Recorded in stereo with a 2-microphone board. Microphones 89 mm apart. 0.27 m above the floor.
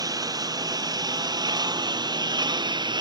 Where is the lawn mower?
45° right (ahead or behind); by 3.0 s 55° right (ahead or behind).